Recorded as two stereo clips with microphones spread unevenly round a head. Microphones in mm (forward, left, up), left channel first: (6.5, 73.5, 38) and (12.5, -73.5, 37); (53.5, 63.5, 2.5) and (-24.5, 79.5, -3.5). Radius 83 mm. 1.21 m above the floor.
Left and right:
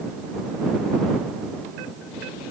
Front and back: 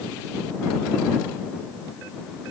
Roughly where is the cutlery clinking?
No cutlery clinking in this recording.